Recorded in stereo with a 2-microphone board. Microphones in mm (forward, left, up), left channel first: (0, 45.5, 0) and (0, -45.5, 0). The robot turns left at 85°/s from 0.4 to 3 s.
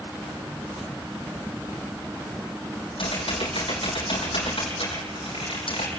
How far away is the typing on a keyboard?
About 5.5 m.